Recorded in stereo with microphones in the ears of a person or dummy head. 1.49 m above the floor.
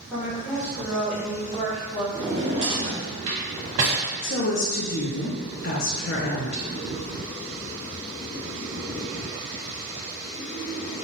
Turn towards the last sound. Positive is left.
turn(degrees=55)  # may be behind; listen again after turning